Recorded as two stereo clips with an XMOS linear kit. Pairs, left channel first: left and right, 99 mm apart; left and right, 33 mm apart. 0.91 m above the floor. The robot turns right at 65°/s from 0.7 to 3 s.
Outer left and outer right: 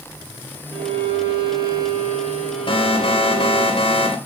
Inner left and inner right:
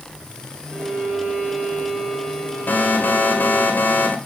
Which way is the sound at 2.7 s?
55° left (ahead or behind).